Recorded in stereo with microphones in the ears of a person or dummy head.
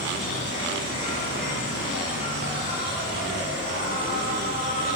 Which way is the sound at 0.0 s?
45° left (ahead or behind).